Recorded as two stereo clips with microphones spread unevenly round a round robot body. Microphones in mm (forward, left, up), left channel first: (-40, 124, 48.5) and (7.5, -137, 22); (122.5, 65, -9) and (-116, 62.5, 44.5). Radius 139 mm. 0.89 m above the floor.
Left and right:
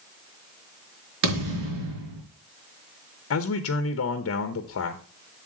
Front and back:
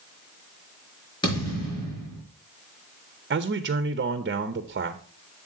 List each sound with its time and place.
1.2 s a thud: 75° right, 5 m
3.3 s a man speaking: 130° left, 0.9 m